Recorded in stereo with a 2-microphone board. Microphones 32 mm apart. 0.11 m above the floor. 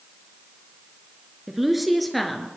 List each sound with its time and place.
1.5 s a woman speaking: 10° right (ahead or behind), 1.7 m; by 2.5 s 5° left (ahead or behind), 2 m